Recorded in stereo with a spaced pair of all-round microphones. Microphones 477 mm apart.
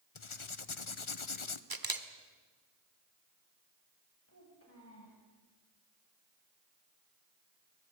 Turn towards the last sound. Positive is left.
turn(degrees=30)  # may be behind; listen again after turning